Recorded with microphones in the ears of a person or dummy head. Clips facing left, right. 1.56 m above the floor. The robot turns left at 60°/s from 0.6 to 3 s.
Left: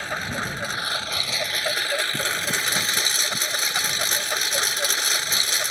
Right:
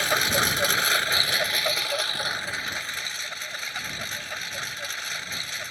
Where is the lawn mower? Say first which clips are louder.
Right 4 dB; 120° right; by 5.7 s 95° left.